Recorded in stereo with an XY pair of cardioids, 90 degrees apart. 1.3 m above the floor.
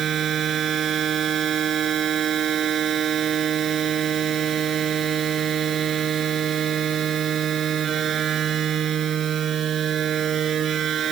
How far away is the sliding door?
No sliding door in this recording.